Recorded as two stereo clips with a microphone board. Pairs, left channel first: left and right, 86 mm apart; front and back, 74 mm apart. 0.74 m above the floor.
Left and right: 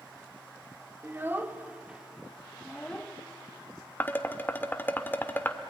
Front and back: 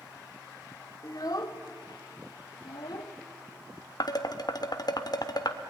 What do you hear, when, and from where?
1.0 s a child speaking: 30° right, 1.7 m; by 3.1 s 15° left, 1.9 m
4.0 s dishes clattering: 25° left, 1.2 m